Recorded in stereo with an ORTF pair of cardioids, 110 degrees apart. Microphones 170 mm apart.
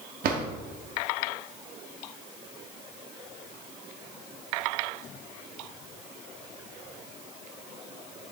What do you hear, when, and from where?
0.2 s a drawer: 65° right, 1.3 m